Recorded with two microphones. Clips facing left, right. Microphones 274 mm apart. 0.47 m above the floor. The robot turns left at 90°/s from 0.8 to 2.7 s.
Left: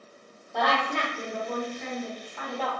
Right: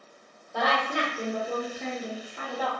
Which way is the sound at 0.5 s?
5° right.